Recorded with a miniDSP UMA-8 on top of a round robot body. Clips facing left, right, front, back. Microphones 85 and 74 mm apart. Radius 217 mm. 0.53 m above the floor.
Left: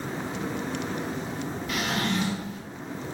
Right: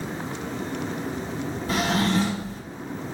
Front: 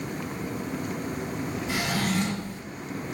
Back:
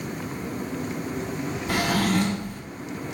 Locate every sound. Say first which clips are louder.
1.7 s a drawer: right 6 dB, back 6 dB; 145° right, 1.3 m